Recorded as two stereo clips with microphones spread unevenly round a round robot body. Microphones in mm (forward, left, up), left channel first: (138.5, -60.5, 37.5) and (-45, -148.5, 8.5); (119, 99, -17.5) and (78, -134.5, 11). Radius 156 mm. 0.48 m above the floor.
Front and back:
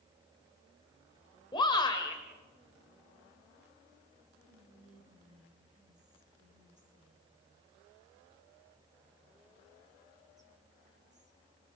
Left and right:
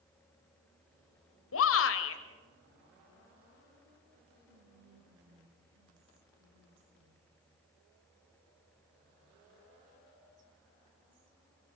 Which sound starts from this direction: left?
A shout, at 1.5 s.